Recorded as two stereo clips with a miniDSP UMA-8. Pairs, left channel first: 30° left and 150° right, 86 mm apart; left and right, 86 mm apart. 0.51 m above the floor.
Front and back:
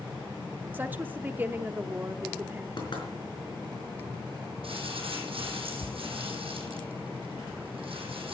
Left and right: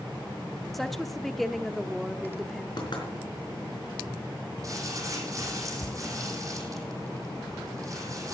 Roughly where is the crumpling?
Behind right.